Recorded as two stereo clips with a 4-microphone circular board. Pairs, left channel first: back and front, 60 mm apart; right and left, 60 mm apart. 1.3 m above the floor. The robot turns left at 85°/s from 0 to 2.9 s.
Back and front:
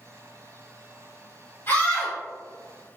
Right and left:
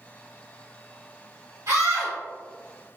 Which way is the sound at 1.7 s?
130° left.